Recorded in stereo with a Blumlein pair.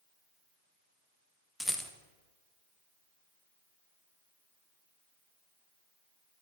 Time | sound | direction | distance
1.6 | a rattle | 5° left | 0.6 m